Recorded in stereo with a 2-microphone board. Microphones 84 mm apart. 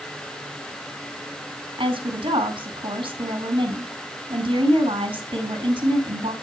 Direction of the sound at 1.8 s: 75° right (ahead or behind).